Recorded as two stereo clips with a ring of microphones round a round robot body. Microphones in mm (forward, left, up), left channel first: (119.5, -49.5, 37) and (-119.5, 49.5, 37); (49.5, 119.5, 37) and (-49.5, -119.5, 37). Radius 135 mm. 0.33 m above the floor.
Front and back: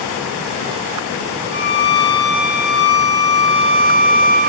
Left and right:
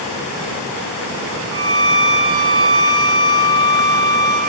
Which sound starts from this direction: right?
A violin, at 1.5 s.